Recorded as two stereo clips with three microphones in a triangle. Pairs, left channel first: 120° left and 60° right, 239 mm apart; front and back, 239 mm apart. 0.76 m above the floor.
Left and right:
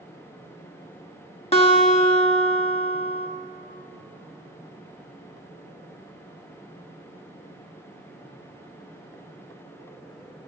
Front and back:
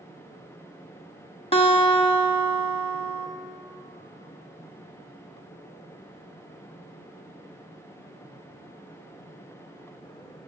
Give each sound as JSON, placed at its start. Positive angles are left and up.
{"t": 1.5, "sound": "a guitar", "azimuth_deg": 65, "distance_m": 1.1}